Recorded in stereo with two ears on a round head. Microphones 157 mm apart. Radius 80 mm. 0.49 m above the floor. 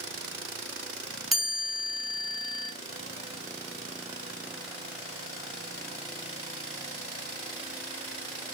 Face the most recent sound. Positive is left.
turn(degrees=0)  # may be behind; listen again after turning